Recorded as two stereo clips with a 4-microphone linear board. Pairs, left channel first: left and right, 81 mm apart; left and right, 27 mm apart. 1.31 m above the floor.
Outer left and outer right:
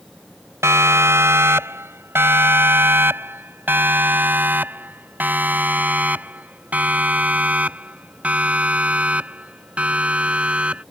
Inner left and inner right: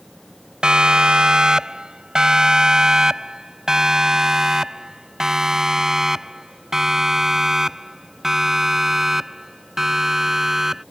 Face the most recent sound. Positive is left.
turn(degrees=-15)  # may be behind; listen again after turning